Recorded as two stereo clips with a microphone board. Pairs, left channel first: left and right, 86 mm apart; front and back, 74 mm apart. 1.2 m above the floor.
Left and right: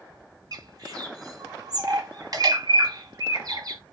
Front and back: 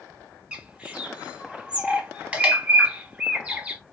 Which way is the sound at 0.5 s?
110° right.